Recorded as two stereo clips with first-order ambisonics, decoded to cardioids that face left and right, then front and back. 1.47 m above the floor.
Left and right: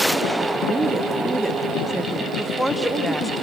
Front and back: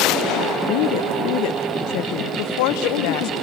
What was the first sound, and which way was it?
A woman speaking, 5° right.